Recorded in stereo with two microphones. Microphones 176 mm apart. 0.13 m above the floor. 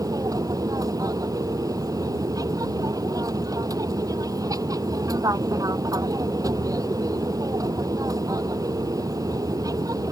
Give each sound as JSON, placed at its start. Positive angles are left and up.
{"t": 0.0, "sound": "an aircraft", "side_deg": -20}